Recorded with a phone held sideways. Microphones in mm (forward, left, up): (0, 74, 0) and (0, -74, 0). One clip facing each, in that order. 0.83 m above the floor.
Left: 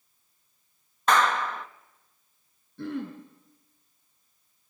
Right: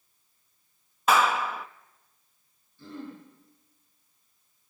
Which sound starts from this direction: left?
Throat clearing, at 2.8 s.